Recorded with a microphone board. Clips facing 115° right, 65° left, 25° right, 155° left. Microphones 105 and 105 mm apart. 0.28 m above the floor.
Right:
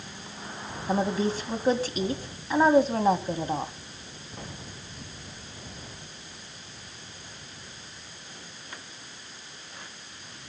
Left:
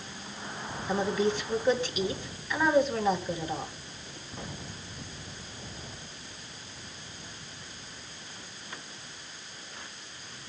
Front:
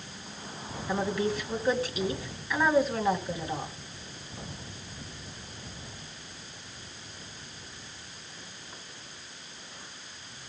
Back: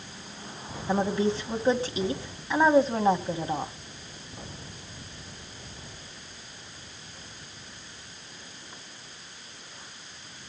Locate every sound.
0.9 s a woman speaking: 150° right, 2.5 m